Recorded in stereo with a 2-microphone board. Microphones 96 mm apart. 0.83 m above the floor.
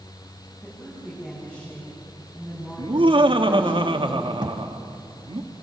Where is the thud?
50° right (ahead or behind), 1.6 m.